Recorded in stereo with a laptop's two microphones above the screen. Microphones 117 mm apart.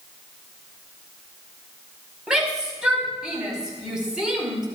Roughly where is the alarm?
I don't hear an alarm.